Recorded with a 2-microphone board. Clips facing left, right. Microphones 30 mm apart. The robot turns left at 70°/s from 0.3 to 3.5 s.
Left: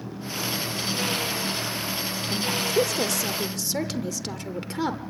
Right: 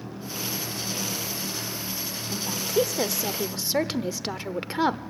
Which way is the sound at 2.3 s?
15° left (ahead or behind).